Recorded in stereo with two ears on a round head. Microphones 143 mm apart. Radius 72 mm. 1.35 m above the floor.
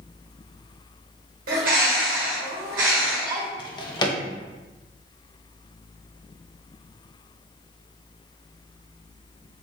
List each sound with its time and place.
1.5 s a bird: 55° right (ahead or behind), 1.2 m
3.6 s a drawer: 25° left (ahead or behind), 0.5 m